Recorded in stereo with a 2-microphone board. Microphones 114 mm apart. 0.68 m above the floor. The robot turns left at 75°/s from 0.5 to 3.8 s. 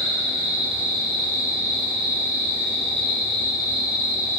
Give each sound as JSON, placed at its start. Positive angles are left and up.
{"t": 0.0, "sound": "an insect", "azimuth_deg": -80, "distance_m": 1.5}